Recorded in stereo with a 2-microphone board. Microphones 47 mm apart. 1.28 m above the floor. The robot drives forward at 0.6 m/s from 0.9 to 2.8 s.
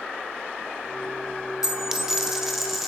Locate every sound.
1.6 s a dropped coin: 15° right (ahead or behind), 0.6 m; by 2.9 s 10° right (ahead or behind), 1.0 m